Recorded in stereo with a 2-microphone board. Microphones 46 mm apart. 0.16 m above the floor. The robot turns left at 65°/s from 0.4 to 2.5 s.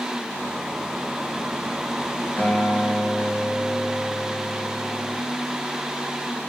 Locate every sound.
2.4 s a guitar: 40° left (ahead or behind), 3 m; by 5.2 s 35° left (ahead or behind), 3 m